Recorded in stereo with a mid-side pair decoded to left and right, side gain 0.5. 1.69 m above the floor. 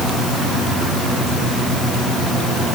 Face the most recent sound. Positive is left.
No sound to turn to.